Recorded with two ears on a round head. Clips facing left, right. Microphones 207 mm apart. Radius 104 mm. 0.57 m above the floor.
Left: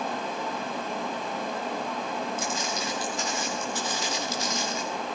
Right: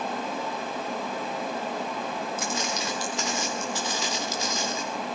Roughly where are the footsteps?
Right.